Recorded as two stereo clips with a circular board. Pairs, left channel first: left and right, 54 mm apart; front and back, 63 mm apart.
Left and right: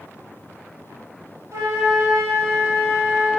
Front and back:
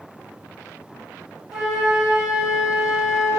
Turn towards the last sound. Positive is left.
turn(degrees=-85)